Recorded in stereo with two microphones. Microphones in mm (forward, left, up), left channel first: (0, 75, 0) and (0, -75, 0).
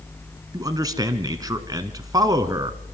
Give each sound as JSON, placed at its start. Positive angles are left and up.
{"t": 0.5, "sound": "a man speaking", "side_deg": -25, "distance_m": 1.1}